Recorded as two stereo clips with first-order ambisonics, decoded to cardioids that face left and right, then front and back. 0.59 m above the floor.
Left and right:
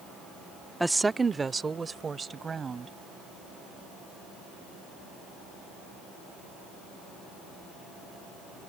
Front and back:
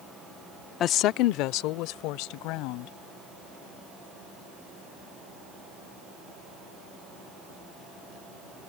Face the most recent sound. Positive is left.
turn(degrees=-15)